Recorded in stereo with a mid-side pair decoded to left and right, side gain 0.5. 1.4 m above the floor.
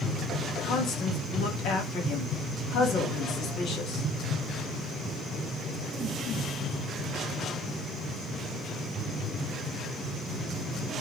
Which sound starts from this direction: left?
A woman speaking, at 0.6 s.